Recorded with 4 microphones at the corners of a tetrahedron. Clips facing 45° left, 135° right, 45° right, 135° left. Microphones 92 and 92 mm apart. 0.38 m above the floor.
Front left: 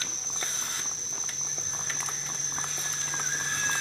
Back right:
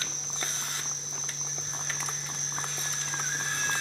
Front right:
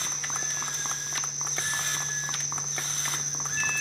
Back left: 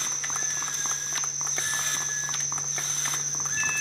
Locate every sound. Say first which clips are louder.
0.0 s an insect: even, even; 20° right, 1.9 m